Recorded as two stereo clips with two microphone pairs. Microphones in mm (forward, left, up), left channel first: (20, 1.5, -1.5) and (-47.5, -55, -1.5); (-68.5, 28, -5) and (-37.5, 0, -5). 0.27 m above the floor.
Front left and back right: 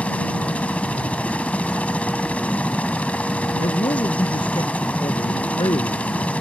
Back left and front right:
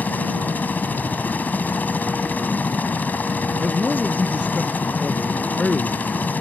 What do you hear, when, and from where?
0.0 s a helicopter: 110° left
3.6 s a man speaking: 50° left